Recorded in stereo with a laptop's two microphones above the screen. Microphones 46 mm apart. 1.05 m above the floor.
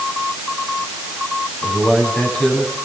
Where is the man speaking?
15° left (ahead or behind), 9.5 m.